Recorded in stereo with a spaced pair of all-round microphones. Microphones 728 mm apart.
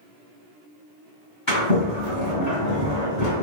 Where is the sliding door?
20° left (ahead or behind), 1.9 m.